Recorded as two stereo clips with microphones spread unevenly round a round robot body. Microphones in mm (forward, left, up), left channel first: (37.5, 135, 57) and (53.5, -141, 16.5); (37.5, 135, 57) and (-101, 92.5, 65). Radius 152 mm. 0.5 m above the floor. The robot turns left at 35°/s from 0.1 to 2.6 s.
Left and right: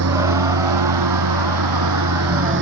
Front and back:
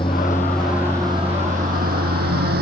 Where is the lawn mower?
55° right; by 2.6 s 140° right.